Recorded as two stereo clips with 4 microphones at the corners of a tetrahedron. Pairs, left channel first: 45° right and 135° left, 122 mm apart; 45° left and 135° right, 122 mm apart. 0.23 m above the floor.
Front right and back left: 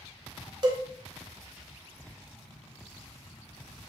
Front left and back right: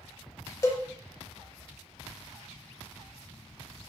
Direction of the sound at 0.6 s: 105° left.